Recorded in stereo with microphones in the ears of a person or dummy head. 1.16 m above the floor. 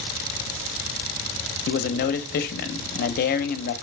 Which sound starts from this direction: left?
A man speaking, at 1.7 s.